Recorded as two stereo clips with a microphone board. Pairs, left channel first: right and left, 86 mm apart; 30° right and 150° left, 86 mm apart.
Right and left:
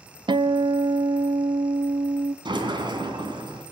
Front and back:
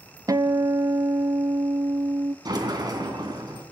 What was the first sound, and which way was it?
A guitar, 105° left.